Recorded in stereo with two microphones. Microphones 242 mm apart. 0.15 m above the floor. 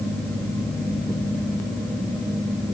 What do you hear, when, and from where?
Only background noise.